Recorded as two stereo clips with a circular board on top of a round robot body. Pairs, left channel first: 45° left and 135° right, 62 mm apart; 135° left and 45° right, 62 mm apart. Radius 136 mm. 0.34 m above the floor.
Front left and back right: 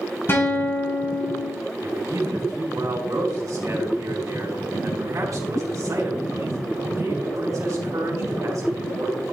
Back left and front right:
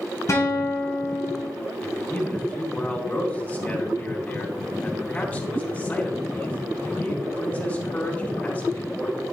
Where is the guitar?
95° left, 3.5 m.